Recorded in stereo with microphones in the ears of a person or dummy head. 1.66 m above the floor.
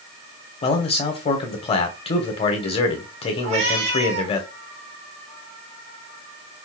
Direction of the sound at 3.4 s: 60° right (ahead or behind).